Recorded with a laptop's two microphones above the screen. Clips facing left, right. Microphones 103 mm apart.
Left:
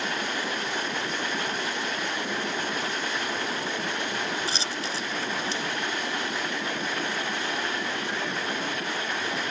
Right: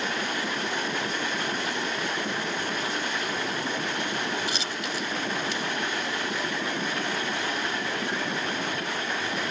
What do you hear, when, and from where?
4.5 s a dropped coin: 35° left (ahead or behind)